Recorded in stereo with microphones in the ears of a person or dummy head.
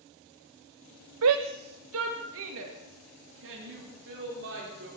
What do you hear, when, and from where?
1.2 s a shout: 75° right (ahead or behind), 1.0 m; by 4.9 s 65° right (ahead or behind), 5.5 m